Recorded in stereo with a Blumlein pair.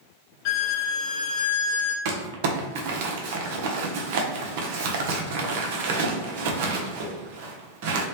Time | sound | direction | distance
0.5 | a violin | 45° left | 0.6 m
2.0 | crumpling | 50° right | 0.7 m